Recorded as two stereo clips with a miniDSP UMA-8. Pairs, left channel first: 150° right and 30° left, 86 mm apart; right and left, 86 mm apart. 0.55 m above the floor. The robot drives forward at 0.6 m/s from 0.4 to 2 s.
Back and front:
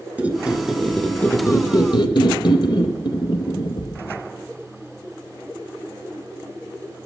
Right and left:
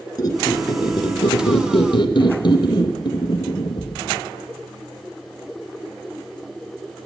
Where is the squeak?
45° right, 0.9 m; by 4.2 s 115° right, 0.7 m.